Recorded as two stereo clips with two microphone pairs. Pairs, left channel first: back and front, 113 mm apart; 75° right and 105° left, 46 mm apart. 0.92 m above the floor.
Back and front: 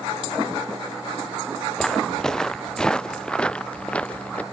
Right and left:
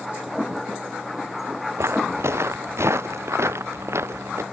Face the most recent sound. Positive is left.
turn(degrees=100)